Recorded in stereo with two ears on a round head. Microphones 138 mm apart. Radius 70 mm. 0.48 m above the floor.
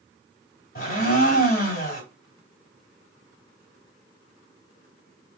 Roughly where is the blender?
Left.